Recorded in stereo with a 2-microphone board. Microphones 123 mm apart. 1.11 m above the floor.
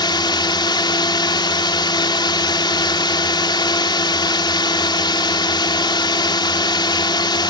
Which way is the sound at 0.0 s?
40° left (ahead or behind).